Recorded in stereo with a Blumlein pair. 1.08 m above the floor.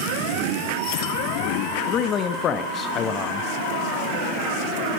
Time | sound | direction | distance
1.9 | a man speaking | 25° left | 0.6 m